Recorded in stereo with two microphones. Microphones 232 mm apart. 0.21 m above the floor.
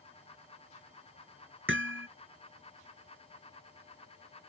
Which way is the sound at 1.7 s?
60° right (ahead or behind).